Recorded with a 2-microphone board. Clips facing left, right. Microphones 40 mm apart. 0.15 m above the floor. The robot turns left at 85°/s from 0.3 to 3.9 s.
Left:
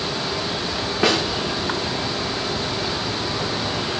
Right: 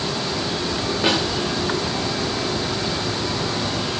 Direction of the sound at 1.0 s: 75° left (ahead or behind).